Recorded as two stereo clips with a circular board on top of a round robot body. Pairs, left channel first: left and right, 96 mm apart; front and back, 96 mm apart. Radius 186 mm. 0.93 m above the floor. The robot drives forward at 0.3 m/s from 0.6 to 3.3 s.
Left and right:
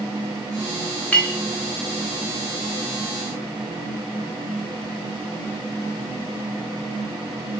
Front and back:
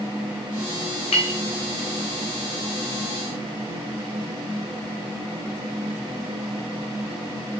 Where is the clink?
10° left, 1.0 m; by 1.4 s 15° left, 0.9 m.